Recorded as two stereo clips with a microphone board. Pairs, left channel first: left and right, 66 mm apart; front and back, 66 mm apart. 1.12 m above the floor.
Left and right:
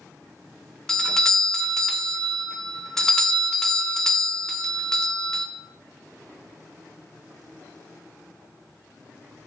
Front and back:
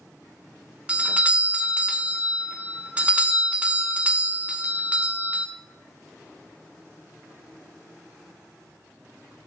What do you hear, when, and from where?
0.9 s a doorbell: 155° left, 0.5 m